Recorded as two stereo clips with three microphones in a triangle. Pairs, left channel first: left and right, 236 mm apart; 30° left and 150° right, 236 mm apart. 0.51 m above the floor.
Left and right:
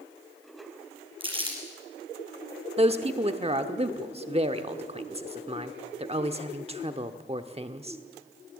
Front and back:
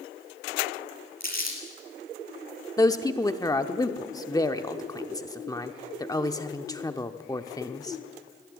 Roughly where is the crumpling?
Ahead.